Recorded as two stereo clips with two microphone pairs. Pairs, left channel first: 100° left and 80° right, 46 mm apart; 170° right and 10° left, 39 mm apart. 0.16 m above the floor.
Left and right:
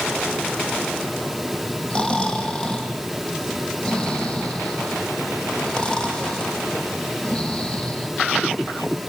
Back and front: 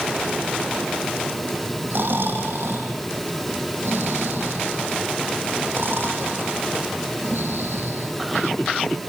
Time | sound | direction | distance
1.9 | snoring | 30° left | 5.5 m